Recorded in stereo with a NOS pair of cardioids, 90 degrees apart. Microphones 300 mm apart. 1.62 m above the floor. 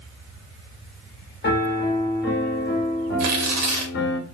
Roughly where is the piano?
Ahead left.